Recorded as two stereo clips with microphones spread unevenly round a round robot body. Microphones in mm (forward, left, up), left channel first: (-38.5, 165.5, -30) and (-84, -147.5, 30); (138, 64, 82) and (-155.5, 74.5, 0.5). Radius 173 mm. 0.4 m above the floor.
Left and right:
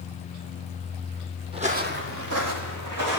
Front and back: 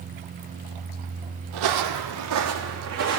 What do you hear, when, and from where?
1.5 s footsteps: 170° right, 1.1 m; by 3.2 s 120° right, 2.5 m